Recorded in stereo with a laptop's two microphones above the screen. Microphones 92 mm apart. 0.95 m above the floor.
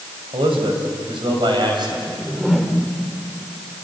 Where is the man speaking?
85° right, 4 m; by 2.0 s 55° right (ahead or behind), 4.5 m.